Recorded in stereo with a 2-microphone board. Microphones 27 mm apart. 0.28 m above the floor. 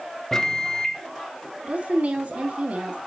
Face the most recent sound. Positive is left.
turn(degrees=-60)  # may be behind; listen again after turning